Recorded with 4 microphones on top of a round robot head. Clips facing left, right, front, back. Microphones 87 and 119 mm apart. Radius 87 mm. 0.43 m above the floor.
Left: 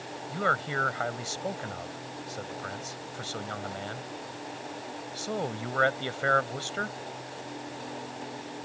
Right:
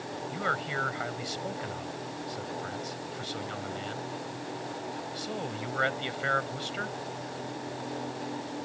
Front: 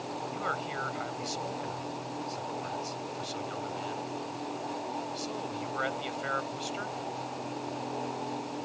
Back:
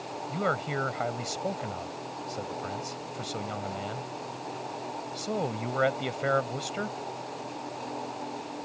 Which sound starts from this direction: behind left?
A man speaking, at 0.3 s.